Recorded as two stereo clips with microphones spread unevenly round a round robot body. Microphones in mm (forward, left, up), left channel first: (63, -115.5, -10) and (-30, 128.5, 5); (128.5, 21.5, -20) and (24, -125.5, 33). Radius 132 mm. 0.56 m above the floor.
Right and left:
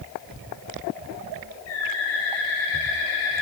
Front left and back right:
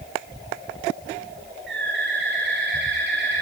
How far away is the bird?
About 8 m.